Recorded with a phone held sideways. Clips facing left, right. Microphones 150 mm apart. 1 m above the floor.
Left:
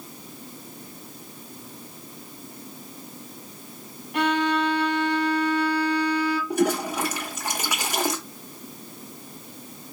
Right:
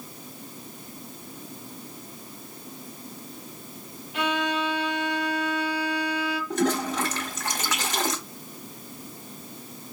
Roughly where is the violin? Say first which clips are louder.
Left 4 dB; left.